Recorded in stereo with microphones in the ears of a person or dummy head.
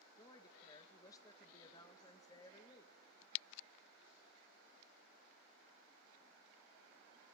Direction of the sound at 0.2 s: 20° left (ahead or behind).